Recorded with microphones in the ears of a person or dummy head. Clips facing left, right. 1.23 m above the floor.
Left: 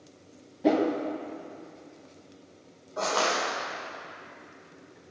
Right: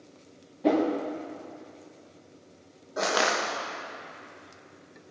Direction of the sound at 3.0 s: 25° right (ahead or behind).